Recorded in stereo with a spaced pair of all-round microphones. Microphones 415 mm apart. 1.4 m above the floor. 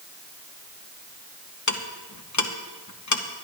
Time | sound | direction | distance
1.7 | ticking | 40° left (ahead or behind) | 0.9 m